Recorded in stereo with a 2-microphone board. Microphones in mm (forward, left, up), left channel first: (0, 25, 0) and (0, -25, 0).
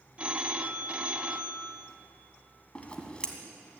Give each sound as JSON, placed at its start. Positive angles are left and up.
{"t": 0.2, "sound": "a phone ringing", "side_deg": -30, "distance_m": 0.7}
{"t": 2.8, "sound": "scissors", "side_deg": 20, "distance_m": 1.5}